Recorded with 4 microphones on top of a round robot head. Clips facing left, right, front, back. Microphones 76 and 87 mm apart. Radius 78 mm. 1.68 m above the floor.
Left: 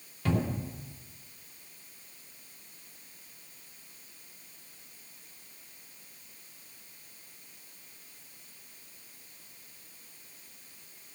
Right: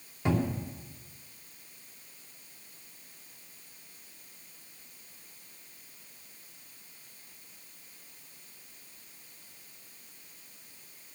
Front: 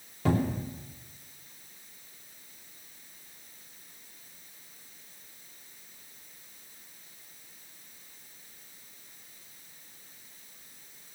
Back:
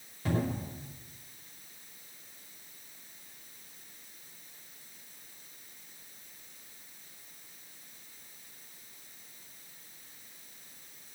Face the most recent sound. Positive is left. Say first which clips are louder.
# right 1 dB, front 4 dB
turn(degrees=-20)